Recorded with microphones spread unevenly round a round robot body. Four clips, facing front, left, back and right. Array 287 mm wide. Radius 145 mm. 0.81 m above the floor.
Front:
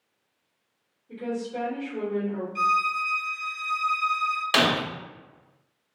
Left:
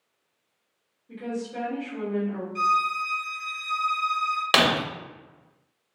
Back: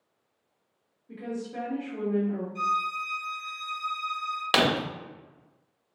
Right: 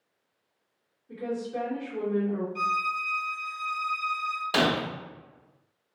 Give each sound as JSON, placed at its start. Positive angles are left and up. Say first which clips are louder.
{"t": 1.1, "sound": "a woman speaking", "louder": "even, front 4 dB", "azimuth_deg": 170, "distance_m": 1.8}
{"t": 2.5, "sound": "a violin", "louder": "left 5 dB, front 6 dB", "azimuth_deg": 45, "distance_m": 0.9}
{"t": 4.5, "sound": "breaking glass", "louder": "left 2 dB, even", "azimuth_deg": 90, "distance_m": 0.8}